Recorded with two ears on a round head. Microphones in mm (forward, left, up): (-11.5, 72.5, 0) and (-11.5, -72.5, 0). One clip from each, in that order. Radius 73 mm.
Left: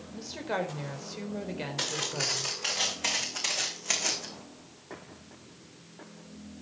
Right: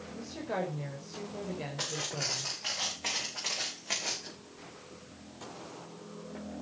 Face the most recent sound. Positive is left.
turn(degrees=75)  # may be behind; listen again after turning